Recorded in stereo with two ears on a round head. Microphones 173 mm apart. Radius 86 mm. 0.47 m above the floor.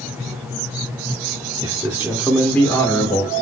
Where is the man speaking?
20° right (ahead or behind), 0.9 m; by 3.3 s 20° left (ahead or behind), 1.4 m.